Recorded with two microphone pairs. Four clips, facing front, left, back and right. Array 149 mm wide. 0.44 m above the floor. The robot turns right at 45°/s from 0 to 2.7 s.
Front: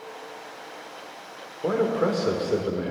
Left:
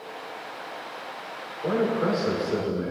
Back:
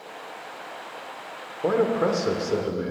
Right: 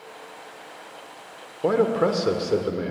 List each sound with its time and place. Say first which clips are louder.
1.6 s a man speaking: right 4 dB, back 1 dB; 115° right, 0.9 m; by 2.9 s 65° right, 0.9 m